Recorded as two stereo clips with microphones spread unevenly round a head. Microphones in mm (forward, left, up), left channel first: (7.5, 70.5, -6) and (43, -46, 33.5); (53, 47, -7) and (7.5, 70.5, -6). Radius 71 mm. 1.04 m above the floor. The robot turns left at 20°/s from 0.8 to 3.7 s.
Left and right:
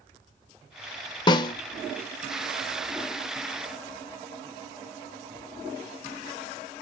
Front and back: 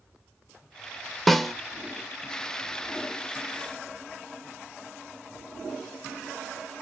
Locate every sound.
1.3 s a snare drum: 65° left, 0.7 m; by 1.5 s 60° left, 0.7 m